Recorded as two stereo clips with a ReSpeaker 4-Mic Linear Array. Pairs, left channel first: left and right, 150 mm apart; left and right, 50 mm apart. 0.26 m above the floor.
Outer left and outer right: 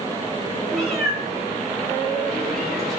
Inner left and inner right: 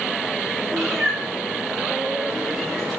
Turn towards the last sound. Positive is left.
turn(degrees=0)  # may be behind; listen again after turning